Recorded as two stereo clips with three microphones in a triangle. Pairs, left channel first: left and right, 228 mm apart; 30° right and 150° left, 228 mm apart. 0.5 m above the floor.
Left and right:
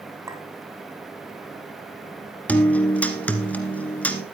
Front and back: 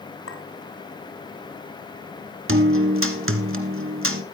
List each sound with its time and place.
0.3 s a clink: 15° right, 2.5 m
2.5 s a guitar: 175° left, 1.6 m